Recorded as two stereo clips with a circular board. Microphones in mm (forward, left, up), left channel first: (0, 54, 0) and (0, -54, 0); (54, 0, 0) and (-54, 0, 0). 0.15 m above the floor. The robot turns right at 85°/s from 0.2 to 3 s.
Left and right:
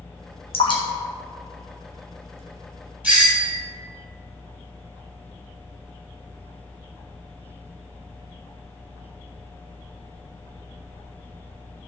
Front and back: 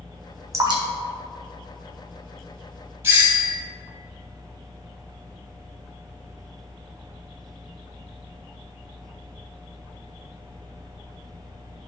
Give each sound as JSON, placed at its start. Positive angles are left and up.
{"t": 0.5, "sound": "dripping", "azimuth_deg": 120, "distance_m": 1.8}
{"t": 3.0, "sound": "a doorbell", "azimuth_deg": -145, "distance_m": 1.9}